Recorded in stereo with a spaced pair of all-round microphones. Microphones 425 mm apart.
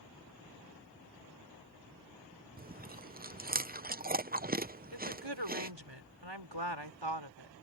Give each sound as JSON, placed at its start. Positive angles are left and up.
{"t": 2.6, "sound": "chewing", "side_deg": -20}
{"t": 4.9, "sound": "a woman speaking", "side_deg": -85}